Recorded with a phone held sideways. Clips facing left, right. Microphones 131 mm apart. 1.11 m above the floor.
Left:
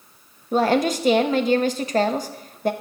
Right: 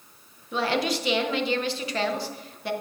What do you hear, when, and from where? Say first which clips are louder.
0.5 s a woman speaking: left 7 dB; 45° left (ahead or behind), 0.9 m